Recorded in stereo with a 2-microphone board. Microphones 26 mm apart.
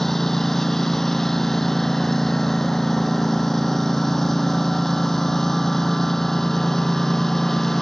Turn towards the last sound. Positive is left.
turn(degrees=10)  # may be behind; listen again after turning